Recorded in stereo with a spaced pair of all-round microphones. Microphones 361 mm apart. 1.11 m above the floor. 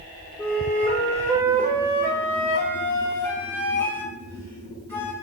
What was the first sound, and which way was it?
A flute, 5° left (ahead or behind).